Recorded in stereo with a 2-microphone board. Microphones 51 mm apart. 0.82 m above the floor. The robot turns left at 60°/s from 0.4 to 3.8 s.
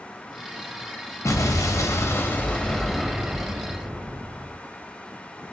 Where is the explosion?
105° left, 0.7 m; by 4.5 s 45° right, 0.7 m.